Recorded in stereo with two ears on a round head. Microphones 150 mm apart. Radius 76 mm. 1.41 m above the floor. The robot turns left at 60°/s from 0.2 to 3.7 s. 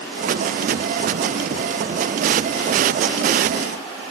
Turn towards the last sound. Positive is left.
No sound to turn to.